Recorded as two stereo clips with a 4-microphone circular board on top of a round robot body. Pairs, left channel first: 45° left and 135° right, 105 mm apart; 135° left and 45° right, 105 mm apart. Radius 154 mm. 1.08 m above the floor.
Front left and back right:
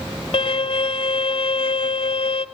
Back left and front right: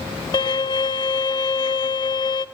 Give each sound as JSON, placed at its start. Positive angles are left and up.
{"t": 0.3, "sound": "a violin", "azimuth_deg": 90, "distance_m": 0.6}